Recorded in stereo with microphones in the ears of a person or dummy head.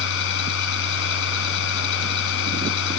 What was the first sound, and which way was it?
A machine running, 70° left (ahead or behind).